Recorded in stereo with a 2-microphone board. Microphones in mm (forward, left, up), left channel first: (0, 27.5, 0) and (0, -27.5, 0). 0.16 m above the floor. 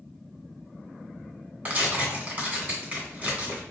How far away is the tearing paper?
About 1.9 m.